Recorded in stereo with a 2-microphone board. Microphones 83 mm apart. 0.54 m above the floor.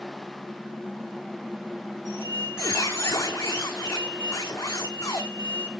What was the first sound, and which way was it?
A squeak, 30° left (ahead or behind).